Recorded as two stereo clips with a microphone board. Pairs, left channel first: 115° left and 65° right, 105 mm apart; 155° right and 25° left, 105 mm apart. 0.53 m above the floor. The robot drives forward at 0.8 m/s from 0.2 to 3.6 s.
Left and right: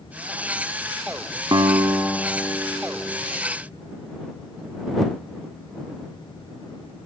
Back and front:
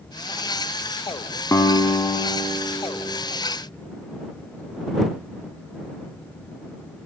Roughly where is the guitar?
Right.